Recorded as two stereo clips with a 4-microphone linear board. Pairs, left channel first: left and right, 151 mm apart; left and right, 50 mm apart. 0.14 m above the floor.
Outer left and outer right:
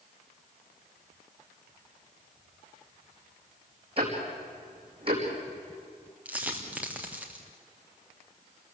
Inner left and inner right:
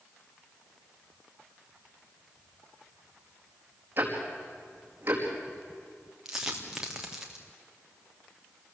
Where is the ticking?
40° right (ahead or behind), 5.5 m.